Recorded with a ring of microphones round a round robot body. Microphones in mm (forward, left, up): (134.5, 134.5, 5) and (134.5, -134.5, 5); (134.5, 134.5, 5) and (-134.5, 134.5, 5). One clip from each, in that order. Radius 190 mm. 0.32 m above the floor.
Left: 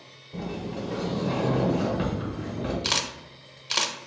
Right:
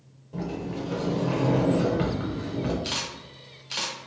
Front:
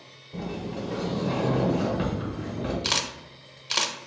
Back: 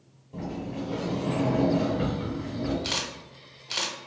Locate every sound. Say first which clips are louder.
0.3 s a sliding door: right 1 dB, front 1 dB; 30° right, 1.0 m
2.8 s a camera shutter: left 4 dB, front 3 dB; 55° left, 0.6 m